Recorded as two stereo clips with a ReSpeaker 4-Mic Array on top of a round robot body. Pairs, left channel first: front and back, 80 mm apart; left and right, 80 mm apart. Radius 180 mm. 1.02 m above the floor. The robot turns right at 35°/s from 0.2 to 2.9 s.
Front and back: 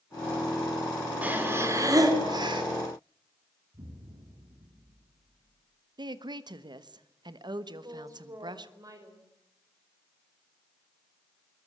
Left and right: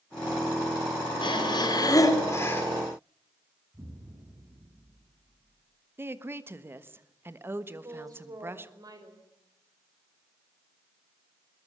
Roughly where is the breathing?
Left.